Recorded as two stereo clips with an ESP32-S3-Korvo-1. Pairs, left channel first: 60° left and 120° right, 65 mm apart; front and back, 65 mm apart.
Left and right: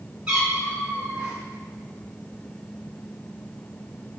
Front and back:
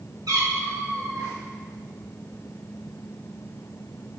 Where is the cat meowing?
165° left, 1.7 m.